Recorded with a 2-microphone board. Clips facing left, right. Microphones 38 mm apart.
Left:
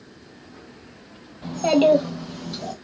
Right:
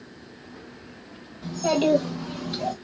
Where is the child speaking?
40° left (ahead or behind), 1.1 m; by 2.7 s 25° right (ahead or behind), 1.2 m.